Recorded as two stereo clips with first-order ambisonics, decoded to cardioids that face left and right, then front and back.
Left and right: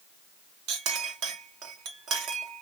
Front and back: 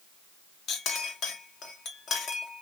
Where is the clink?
55° right, 1.0 m.